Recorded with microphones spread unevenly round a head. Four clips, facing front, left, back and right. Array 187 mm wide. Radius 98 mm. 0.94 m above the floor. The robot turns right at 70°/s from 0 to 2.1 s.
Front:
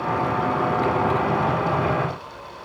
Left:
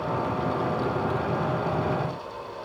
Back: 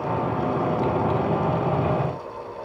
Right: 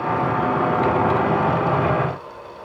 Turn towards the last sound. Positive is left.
No sound to turn to.